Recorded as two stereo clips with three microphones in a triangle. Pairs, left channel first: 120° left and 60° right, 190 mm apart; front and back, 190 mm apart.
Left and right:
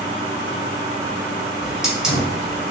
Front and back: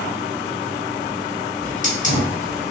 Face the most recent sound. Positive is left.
turn(degrees=25)